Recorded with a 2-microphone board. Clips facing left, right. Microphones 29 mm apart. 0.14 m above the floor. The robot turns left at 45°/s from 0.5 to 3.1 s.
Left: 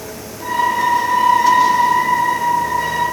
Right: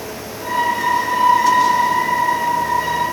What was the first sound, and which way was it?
Only background noise.